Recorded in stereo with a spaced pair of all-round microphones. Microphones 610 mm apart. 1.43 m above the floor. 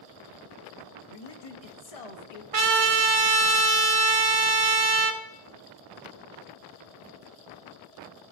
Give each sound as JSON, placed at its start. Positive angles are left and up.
{"t": 1.1, "sound": "a man speaking", "side_deg": 65, "distance_m": 0.8}
{"t": 2.5, "sound": "a trumpet", "side_deg": -60, "distance_m": 0.7}